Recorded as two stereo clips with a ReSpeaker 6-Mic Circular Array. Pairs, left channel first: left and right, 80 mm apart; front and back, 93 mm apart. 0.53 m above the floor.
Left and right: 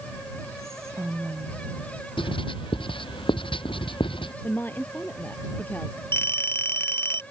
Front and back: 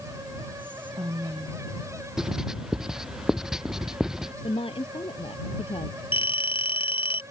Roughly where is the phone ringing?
Ahead left.